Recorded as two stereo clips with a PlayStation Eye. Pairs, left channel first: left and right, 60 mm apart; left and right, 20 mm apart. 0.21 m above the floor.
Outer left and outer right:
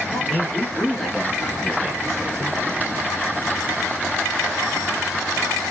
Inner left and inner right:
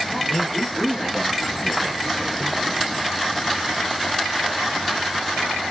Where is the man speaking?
5° left (ahead or behind), 3 m; by 2.6 s 5° right (ahead or behind), 1.4 m.